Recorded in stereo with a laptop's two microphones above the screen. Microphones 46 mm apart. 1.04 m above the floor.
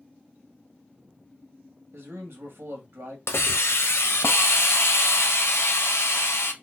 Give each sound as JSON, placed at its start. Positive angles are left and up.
{"t": 1.9, "sound": "a man speaking", "side_deg": -65, "distance_m": 1.5}
{"t": 3.3, "sound": "a hiss", "side_deg": 85, "distance_m": 0.8}